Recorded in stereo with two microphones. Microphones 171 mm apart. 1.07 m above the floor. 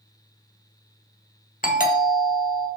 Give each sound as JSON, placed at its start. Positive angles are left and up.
{"t": 1.6, "sound": "a doorbell", "side_deg": 55, "distance_m": 1.2}